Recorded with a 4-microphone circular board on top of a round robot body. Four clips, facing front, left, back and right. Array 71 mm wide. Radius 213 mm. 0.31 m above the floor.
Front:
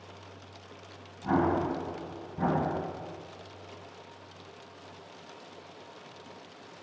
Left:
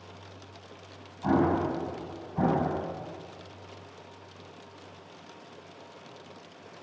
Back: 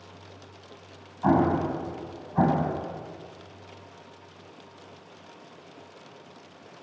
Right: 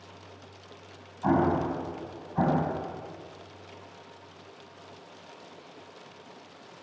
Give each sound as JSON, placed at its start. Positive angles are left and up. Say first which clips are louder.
{"t": 1.2, "sound": "an explosion", "louder": "even, back 4 dB", "azimuth_deg": -160, "distance_m": 9.5}